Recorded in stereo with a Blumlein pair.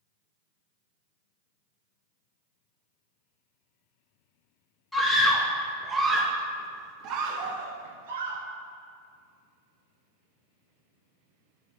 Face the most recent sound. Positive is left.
turn(degrees=-65)